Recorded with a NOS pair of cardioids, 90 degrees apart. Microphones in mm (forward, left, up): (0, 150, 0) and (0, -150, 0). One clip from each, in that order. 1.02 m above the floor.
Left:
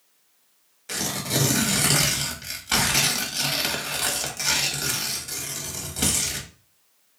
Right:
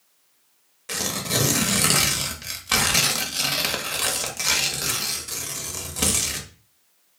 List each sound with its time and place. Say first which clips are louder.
0.9 s tearing paper: right 1 dB; 15° right, 0.6 m